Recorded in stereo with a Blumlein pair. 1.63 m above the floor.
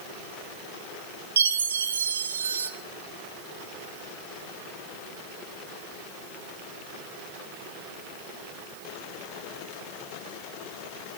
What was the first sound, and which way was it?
A chime, 65° right.